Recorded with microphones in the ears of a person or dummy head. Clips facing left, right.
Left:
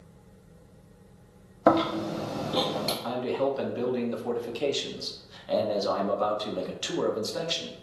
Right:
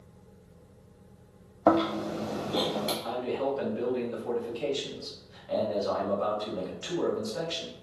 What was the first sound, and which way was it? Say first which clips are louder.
A fan: left 1 dB; 5° right (ahead or behind).